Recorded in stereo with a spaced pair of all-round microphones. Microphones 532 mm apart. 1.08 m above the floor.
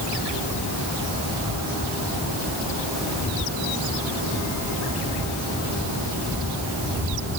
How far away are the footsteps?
No footsteps in this recording.